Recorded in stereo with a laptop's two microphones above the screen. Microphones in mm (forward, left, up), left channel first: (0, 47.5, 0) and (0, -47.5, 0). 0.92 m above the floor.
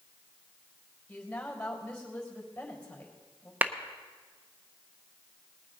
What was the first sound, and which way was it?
A woman speaking, 10° left (ahead or behind).